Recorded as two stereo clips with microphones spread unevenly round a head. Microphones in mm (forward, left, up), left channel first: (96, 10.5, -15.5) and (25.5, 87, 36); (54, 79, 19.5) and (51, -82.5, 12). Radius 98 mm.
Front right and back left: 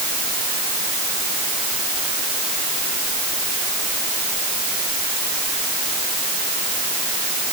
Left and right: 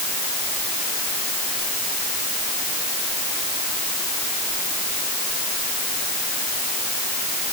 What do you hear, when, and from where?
Only background noise.